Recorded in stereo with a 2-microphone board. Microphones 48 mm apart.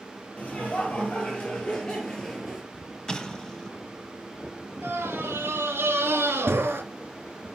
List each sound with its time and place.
0.4 s laughter: 30° left (ahead or behind), 4.5 m; by 2.6 s 5° left (ahead or behind), 4 m
3.1 s an explosion: 15° left (ahead or behind), 1.1 m
4.8 s a scream: 65° right (ahead or behind), 3 m